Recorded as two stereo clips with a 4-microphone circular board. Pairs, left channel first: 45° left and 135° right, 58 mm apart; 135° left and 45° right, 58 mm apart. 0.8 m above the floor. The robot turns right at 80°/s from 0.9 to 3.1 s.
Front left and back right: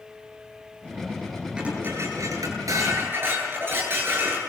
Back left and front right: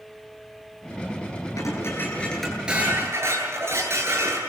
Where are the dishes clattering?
150° left, 9 m; by 4.4 s 85° right, 9 m.